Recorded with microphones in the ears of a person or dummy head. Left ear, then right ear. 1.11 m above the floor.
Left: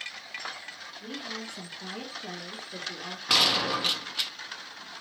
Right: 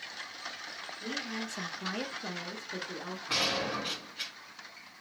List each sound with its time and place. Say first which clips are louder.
1.0 s a woman speaking: even; 20° right (ahead or behind), 1.0 m; by 3.2 s 10° right (ahead or behind), 0.9 m
3.3 s a gunshot: left 8 dB; 55° left (ahead or behind), 0.7 m